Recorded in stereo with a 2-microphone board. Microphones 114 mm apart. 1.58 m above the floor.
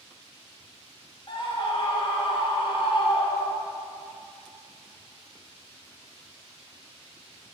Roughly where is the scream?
Left.